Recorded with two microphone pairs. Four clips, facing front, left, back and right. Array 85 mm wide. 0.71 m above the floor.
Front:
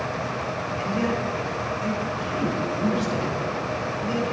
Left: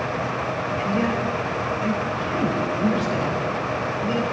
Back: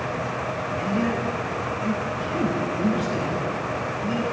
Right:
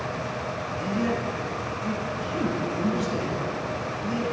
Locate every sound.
0.8 s a man speaking: 80° left, 3 m